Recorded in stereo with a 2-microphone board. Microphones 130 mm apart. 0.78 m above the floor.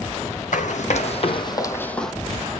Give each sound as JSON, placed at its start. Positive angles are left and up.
{"t": 0.5, "sound": "running footsteps", "side_deg": 70, "distance_m": 2.0}